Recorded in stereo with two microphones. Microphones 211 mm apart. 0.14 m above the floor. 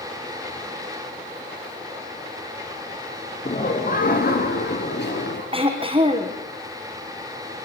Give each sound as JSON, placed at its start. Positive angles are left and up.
{"t": 3.5, "sound": "laughter", "side_deg": 35, "distance_m": 2.5}
{"t": 5.5, "sound": "throat clearing", "side_deg": -25, "distance_m": 4.0}